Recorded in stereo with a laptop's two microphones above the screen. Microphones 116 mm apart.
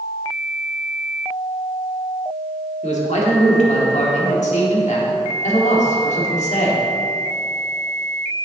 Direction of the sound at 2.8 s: 80° left.